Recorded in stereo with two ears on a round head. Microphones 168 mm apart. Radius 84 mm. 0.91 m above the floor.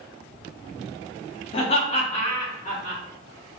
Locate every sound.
1.5 s laughter: 30° left (ahead or behind), 0.7 m; by 3.0 s 35° left (ahead or behind), 1.6 m